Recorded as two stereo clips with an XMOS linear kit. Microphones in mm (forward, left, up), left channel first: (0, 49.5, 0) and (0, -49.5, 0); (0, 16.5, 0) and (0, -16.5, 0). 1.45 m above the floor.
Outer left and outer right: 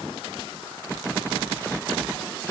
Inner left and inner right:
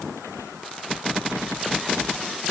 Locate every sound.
Only background noise.